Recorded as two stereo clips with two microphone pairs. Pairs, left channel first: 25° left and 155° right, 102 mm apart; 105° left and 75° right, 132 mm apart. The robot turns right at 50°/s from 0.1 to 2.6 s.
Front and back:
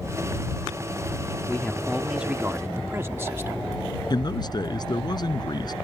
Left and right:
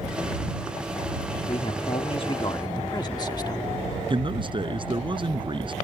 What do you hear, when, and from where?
1.5 s a man speaking: 95° left; by 3.6 s 150° left
4.1 s a man speaking: 25° right